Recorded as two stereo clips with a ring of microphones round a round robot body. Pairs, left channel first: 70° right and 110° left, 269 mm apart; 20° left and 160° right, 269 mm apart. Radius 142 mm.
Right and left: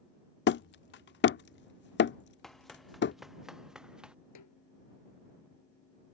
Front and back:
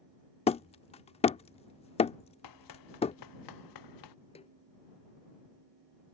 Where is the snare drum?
45° right.